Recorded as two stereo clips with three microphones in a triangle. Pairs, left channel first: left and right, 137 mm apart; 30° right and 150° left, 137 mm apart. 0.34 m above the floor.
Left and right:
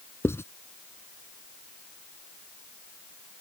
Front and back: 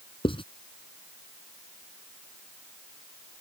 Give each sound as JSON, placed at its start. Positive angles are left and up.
{"t": 0.2, "sound": "writing", "azimuth_deg": 20}